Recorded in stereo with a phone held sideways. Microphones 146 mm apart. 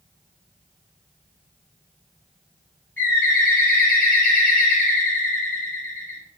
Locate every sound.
3.0 s a bird: 15° left (ahead or behind), 1.5 m